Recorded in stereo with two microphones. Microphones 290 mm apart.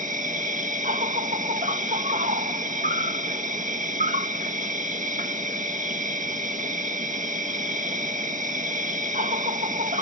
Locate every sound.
0.0 s an insect: 25° right (ahead or behind)